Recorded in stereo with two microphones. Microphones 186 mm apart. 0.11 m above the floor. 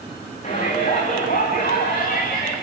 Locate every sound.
0.4 s a shout: 40° left (ahead or behind), 10 m; by 2.5 s 50° left (ahead or behind), 10 m